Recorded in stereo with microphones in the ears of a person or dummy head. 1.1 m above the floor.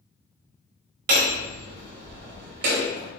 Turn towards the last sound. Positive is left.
turn(degrees=-55)  # may be behind; listen again after turning